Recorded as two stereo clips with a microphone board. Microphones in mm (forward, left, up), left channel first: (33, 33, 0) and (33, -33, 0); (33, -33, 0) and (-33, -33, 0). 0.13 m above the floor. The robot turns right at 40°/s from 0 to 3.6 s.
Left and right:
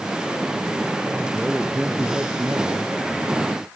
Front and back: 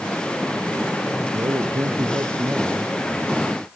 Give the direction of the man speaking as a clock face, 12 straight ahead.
6 o'clock.